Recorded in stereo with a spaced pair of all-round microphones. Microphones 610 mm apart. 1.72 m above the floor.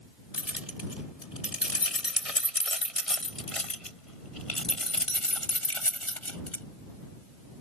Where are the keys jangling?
75° left (ahead or behind); by 6.6 s 55° left (ahead or behind).